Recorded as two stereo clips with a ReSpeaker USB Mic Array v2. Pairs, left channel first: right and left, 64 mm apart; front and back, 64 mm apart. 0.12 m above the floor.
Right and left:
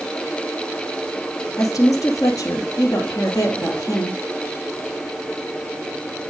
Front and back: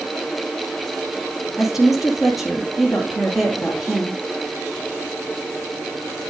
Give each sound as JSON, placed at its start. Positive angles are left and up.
{"t": 1.6, "sound": "a woman speaking", "azimuth_deg": -95, "distance_m": 2.5}